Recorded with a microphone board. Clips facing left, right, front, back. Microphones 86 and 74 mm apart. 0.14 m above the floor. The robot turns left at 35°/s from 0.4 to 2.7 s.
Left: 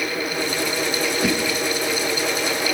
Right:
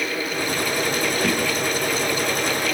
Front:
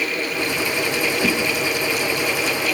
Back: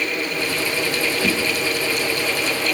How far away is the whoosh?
About 1.2 m.